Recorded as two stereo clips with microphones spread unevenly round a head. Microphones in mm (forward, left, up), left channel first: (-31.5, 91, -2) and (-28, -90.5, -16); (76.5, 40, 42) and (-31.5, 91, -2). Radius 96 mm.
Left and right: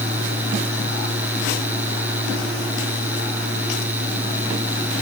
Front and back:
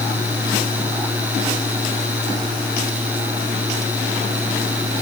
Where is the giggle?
No giggle in this recording.